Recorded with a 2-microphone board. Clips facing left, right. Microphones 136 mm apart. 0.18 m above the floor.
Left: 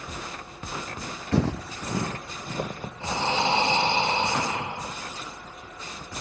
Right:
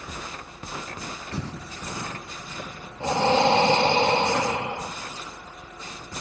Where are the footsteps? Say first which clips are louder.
Left 13 dB; 80° left, 0.5 m; by 2.9 s 45° left (ahead or behind), 1.2 m.